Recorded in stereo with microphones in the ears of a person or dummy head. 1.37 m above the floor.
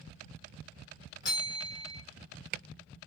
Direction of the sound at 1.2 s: 25° left (ahead or behind).